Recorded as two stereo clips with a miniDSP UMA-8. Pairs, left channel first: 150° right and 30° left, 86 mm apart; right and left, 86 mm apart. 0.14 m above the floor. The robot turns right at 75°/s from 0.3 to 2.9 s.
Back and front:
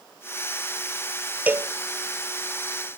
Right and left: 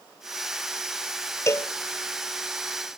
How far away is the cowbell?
About 1.0 m.